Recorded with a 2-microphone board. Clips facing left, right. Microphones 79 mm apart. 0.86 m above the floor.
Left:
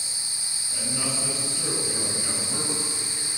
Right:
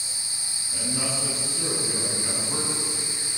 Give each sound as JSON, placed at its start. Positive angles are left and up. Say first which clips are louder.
{"t": 0.7, "sound": "a man speaking", "louder": "right 1 dB", "side_deg": -15, "distance_m": 6.0}